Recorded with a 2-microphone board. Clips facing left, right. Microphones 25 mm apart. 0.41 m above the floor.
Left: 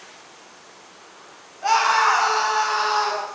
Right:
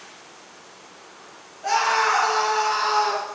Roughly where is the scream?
Left.